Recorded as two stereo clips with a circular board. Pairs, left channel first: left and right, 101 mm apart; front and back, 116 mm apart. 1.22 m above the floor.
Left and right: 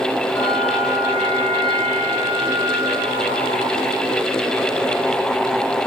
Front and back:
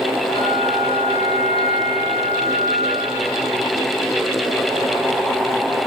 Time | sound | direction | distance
0.3 | a bell | 40° left | 7 m